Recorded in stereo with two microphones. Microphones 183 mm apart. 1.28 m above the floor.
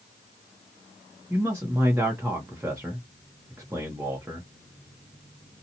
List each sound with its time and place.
1.3 s a man speaking: 10° right (ahead or behind), 0.8 m